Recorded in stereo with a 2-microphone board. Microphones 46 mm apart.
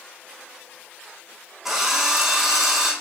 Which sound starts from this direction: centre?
A drill, at 1.6 s.